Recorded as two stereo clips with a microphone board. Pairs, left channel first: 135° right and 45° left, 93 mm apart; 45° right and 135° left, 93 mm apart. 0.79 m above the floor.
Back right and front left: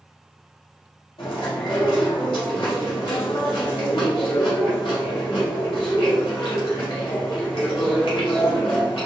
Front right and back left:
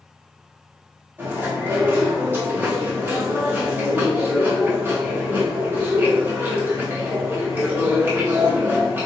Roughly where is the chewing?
Behind right.